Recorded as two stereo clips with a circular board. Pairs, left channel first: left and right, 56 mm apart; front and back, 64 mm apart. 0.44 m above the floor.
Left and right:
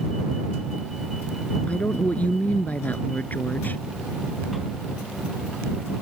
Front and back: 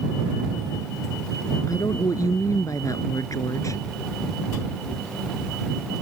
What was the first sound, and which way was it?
A woman speaking, 25° left.